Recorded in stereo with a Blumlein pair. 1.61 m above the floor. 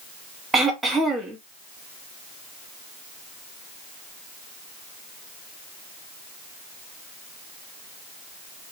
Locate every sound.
0.5 s throat clearing: 15° right, 0.8 m